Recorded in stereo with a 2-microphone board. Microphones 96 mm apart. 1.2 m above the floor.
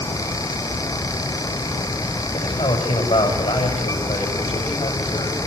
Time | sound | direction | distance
2.3 | a man speaking | 75° left (ahead or behind) | 6 m